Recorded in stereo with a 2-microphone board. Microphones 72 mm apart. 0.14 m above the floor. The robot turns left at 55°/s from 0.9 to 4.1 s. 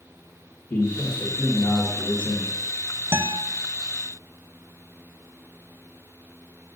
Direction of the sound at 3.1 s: 35° right (ahead or behind).